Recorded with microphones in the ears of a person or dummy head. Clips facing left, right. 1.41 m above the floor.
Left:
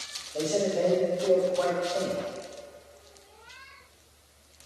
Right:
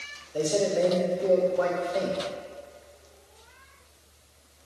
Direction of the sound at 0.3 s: 25° right (ahead or behind).